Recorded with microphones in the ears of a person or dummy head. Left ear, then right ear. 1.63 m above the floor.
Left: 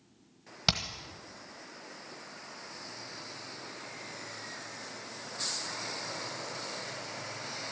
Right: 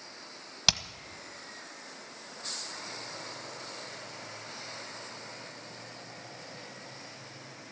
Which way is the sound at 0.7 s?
30° right (ahead or behind).